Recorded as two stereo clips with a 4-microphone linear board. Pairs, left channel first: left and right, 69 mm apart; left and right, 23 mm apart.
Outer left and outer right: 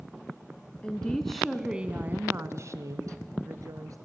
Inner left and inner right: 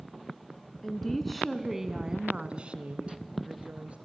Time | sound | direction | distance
0.8 | a woman speaking | 15° left (ahead or behind) | 2 m